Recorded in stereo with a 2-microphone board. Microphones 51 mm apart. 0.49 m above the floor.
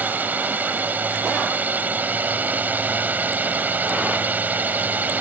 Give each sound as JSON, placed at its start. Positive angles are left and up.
{"t": 0.0, "sound": "a drone", "side_deg": -35}